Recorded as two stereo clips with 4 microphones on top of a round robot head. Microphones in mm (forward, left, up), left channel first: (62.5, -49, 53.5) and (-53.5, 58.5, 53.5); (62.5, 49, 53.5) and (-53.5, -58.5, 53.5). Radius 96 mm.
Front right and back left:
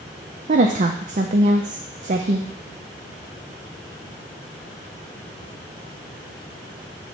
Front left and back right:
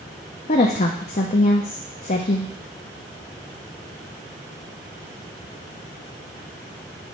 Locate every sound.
0.5 s a woman speaking: 95° left, 0.6 m